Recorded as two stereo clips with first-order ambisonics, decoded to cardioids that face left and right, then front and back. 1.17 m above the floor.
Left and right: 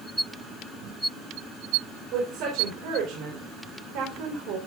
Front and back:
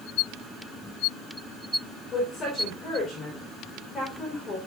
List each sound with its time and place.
2.1 s a woman speaking: 70° right, 4 m